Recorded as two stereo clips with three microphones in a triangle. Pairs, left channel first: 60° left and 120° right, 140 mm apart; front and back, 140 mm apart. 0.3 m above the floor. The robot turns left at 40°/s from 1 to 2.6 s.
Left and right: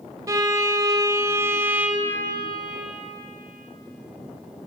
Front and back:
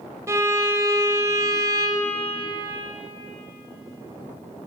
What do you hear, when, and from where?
0.3 s a violin: 145° right, 1.3 m; by 2.3 s 165° left, 1.3 m